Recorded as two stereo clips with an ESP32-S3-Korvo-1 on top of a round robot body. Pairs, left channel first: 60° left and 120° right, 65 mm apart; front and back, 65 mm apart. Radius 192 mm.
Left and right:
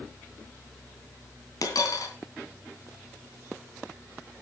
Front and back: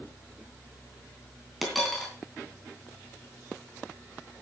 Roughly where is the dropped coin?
Left.